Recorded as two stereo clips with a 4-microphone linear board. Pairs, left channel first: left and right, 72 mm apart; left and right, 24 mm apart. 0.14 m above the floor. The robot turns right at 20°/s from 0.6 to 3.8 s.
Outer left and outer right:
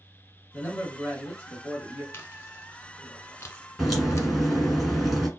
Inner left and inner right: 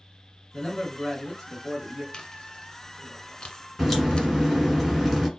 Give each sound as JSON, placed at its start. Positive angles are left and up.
{"t": 0.5, "sound": "a man speaking", "side_deg": 25, "distance_m": 1.9}
{"t": 2.1, "sound": "chewing", "side_deg": 35, "distance_m": 0.6}
{"t": 3.8, "sound": "a crack", "side_deg": 0, "distance_m": 1.7}